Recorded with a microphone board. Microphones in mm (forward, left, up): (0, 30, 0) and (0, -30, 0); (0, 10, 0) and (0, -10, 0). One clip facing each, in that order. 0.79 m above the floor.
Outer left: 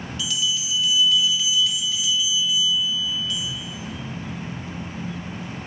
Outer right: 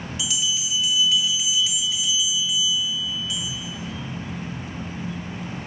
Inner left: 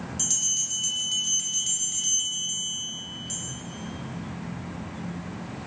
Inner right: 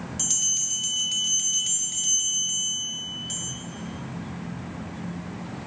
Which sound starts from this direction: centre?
A bell, at 0.2 s.